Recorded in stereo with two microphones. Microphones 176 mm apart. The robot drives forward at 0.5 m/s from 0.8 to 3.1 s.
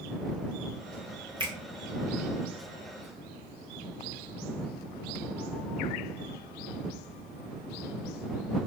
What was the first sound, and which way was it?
A finger snap, 30° right (ahead or behind).